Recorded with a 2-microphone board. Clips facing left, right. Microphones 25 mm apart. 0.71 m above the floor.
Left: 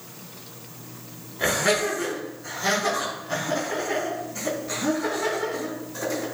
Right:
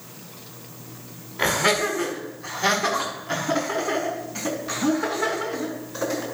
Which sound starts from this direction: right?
Laughter, at 1.4 s.